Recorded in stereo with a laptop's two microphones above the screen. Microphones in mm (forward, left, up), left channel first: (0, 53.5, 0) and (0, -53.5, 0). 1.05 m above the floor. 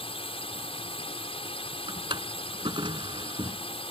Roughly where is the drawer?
Right.